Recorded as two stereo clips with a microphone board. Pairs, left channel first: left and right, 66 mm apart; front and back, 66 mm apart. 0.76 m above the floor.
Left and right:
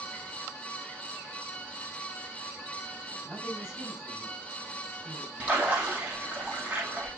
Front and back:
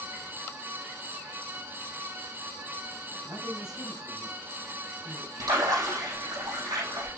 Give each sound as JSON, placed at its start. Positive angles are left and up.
{"t": 3.2, "sound": "a man speaking", "azimuth_deg": -170, "distance_m": 5.5}
{"t": 5.4, "sound": "a splash", "azimuth_deg": -160, "distance_m": 6.0}